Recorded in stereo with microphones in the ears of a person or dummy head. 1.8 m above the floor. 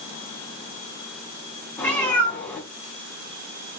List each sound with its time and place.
1.8 s a cat meowing: 10° left (ahead or behind), 1.6 m